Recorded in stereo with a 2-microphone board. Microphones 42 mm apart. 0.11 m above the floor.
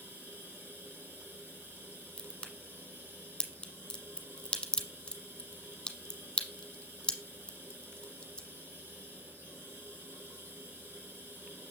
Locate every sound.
0.0 s running water: 80° right, 2.5 m
2.2 s a crack: 20° left (ahead or behind), 1.2 m